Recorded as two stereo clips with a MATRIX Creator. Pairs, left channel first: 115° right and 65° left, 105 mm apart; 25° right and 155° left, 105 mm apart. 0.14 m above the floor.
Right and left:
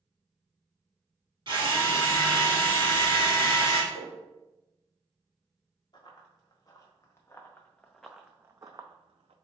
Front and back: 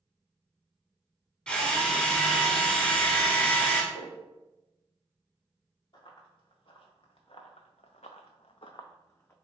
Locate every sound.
1.5 s a drill: 55° left, 1.2 m
3.9 s a whoosh: 15° right, 1.8 m
5.9 s running footsteps: 65° right, 1.5 m; by 9.3 s 45° left, 0.6 m